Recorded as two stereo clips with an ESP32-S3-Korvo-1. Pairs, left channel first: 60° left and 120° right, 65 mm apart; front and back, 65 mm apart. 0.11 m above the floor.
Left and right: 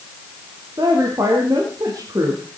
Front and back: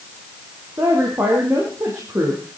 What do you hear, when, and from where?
0.8 s a woman speaking: 135° right, 4.5 m